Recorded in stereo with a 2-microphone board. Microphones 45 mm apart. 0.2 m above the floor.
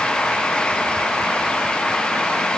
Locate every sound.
Only background noise.